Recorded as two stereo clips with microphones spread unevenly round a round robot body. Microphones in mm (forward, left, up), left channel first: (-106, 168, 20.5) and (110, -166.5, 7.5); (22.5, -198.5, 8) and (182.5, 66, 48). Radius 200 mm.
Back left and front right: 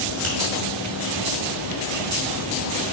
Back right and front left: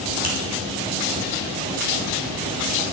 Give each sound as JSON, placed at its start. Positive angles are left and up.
{"t": 0.2, "sound": "a finger snap", "azimuth_deg": -5, "distance_m": 2.5}